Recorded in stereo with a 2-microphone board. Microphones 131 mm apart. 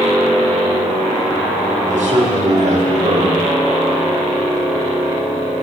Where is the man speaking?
80° right, 4.5 m.